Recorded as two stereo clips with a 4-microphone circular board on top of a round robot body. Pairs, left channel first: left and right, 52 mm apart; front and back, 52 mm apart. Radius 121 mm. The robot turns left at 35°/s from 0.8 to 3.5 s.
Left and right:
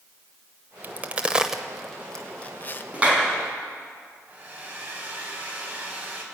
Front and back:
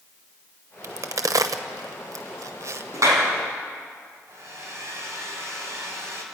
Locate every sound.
0.8 s a crack: 145° right, 0.7 m; by 2.8 s 145° left, 0.7 m
2.9 s a clap: 155° right, 4 m; by 3.3 s 165° right, 4 m
4.3 s a hair dryer: 145° right, 3.5 m